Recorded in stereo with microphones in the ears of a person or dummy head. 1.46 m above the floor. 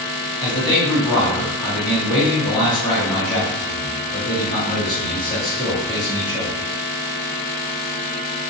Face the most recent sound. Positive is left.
turn(degrees=25)  # may be behind; listen again after turning